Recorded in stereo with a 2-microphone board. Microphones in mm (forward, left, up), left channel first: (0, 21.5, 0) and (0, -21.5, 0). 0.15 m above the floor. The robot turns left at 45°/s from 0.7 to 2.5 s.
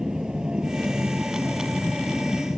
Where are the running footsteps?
No running footsteps in this recording.